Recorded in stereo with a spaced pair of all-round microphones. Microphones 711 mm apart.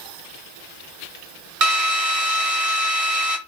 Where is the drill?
50° right (ahead or behind), 1.8 m.